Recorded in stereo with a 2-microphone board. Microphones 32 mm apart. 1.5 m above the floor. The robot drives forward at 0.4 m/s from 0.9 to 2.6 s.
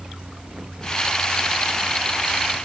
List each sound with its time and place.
Only background noise.